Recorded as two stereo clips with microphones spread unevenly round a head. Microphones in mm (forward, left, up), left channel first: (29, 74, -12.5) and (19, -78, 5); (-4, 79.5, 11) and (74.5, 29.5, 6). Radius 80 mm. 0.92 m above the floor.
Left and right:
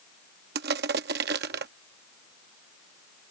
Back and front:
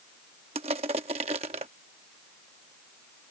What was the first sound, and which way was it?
Crushing, 75° right.